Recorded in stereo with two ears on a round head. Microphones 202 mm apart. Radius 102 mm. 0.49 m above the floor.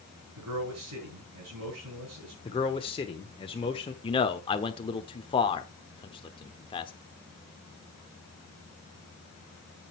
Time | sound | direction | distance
0.4 | a man speaking | 80° right | 7.5 m
2.5 | a man speaking | 25° left (ahead or behind) | 1.1 m
4.0 | a man speaking | 20° left (ahead or behind) | 1.1 m